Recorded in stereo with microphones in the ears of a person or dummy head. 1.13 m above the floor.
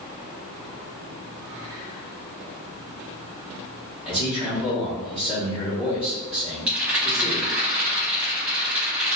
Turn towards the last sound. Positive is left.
turn(degrees=-10)  # may be behind; listen again after turning